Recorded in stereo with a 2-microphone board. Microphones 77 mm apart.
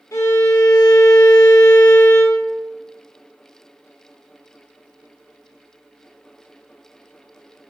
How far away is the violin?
About 0.9 m.